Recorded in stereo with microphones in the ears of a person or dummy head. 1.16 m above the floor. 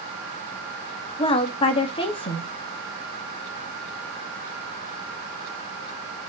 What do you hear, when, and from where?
1.2 s a woman speaking: 35° left (ahead or behind), 1.5 m